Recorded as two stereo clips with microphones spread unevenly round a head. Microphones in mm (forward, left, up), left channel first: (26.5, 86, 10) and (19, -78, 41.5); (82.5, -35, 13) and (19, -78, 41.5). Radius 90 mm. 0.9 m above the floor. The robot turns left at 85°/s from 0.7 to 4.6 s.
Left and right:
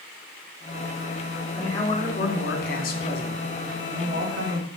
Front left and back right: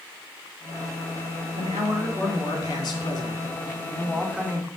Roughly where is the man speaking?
Behind.